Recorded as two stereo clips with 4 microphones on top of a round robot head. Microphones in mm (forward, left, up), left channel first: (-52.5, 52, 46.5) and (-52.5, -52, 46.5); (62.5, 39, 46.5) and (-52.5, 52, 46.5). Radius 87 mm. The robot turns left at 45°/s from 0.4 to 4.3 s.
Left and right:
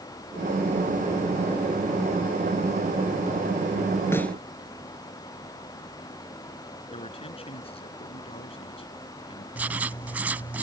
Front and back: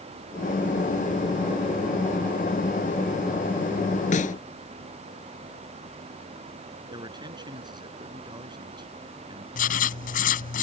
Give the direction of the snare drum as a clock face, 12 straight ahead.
12 o'clock.